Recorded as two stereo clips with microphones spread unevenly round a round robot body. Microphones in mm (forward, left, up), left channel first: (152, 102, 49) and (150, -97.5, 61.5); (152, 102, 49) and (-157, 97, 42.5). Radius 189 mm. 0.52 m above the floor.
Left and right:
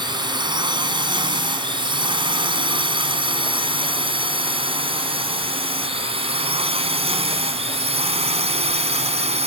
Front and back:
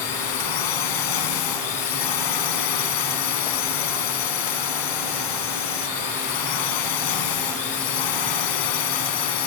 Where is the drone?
25° right; by 9.5 s 30° right.